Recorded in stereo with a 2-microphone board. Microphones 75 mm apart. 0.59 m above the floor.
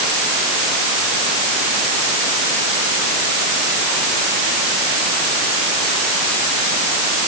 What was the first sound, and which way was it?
Only background noise.